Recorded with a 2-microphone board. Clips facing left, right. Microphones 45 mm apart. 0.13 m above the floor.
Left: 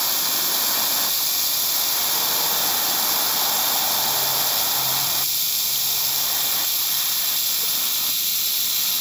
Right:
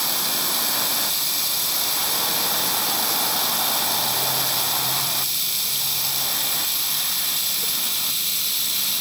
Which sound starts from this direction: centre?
Running water, at 0.0 s.